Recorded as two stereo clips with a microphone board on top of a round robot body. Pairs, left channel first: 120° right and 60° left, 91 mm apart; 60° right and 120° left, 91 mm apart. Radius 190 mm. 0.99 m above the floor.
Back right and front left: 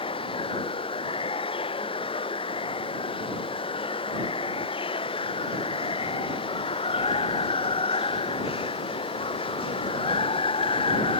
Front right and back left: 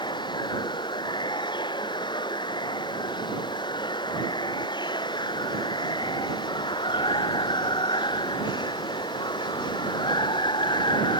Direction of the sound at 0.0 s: 100° right.